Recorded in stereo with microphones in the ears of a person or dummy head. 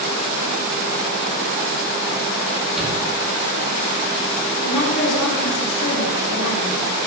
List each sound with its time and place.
2.8 s a shout: centre (ahead or behind), 3 m
4.6 s a woman speaking: 75° left (ahead or behind), 2.5 m